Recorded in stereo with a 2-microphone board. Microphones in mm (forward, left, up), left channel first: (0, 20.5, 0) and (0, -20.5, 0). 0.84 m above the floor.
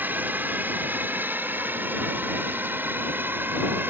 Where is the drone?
50° right (ahead or behind); by 3.9 s 55° right (ahead or behind).